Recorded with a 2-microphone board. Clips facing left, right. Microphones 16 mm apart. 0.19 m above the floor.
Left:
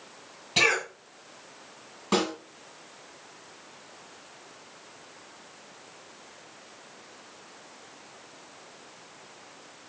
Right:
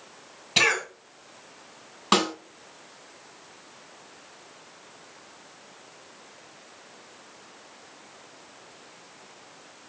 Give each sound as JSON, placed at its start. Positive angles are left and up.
{"t": 0.6, "sound": "a cough", "side_deg": -20, "distance_m": 1.5}
{"t": 2.1, "sound": "a snare drum", "side_deg": -45, "distance_m": 2.0}